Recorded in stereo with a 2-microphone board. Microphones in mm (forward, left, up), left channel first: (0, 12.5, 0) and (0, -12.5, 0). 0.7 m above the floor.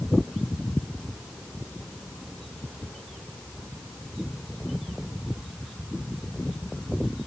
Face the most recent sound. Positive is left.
No sound to turn to.